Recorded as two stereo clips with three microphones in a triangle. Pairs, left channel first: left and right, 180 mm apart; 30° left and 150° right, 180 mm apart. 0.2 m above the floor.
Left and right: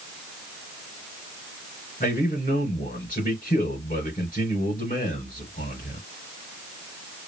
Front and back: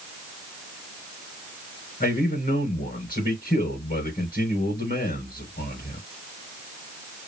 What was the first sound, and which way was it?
A man speaking, 55° left.